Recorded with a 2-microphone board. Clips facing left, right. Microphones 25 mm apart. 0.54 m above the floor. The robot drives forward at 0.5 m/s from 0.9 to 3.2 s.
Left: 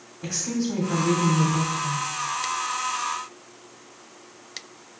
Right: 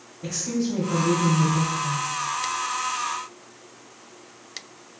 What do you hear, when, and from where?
0.2 s a woman speaking: 35° left (ahead or behind), 1.5 m